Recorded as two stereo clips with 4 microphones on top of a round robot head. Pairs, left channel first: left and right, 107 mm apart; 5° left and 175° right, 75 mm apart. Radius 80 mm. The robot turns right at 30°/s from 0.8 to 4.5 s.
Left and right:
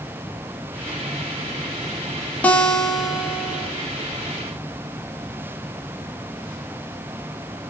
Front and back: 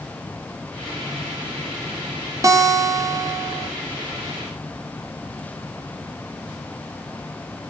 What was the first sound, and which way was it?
A guitar, 165° left.